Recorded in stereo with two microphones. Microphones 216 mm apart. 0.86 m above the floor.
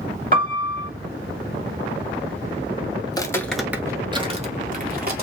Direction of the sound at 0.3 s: 45° right (ahead or behind).